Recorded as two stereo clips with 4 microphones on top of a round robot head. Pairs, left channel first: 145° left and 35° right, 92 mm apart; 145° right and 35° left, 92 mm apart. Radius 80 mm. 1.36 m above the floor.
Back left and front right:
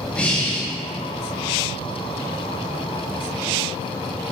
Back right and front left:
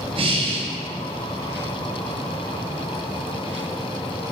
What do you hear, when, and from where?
0.1 s breathing: 65° left, 0.7 m